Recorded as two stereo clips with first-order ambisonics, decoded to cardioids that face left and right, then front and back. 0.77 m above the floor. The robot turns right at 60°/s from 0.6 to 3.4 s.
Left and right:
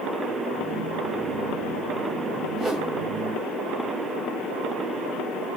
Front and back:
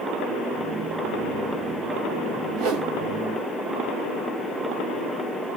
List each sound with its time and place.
2.6 s a whoosh: straight behind, 1.2 m; by 2.9 s 160° right, 1.2 m